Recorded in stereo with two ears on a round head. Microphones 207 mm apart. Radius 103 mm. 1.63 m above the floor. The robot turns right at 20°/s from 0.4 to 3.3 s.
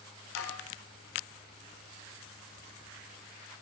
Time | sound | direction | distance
0.3 | dishes clattering | 70° left (ahead or behind) | 4 m